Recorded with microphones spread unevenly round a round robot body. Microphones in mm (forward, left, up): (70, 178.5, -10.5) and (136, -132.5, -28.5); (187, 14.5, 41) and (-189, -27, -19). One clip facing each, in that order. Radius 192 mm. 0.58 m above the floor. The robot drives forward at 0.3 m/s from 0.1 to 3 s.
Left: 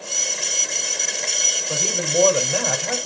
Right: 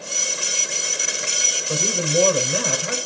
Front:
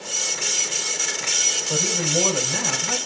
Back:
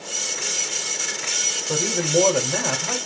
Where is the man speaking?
150° right, 1.7 m; by 3.0 s 155° right, 2 m.